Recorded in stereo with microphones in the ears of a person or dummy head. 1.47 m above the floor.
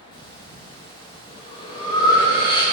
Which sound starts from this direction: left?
Breathing, at 0.1 s.